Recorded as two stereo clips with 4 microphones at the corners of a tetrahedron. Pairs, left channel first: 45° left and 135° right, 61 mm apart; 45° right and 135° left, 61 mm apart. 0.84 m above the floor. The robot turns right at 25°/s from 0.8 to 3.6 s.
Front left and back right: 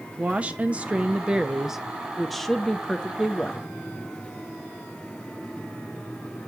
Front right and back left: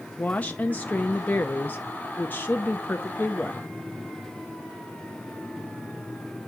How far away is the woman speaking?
About 0.6 m.